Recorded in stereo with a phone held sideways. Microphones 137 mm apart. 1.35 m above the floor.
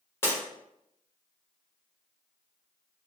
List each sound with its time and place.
0.2 s breaking glass: 15° left (ahead or behind), 1.0 m